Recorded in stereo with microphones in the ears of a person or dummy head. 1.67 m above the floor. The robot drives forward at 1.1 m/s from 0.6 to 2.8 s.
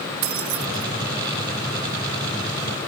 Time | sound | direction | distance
0.2 | keys jangling | 35° right (ahead or behind) | 0.6 m